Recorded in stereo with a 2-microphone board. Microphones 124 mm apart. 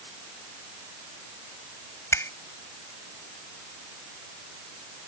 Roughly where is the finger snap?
Left.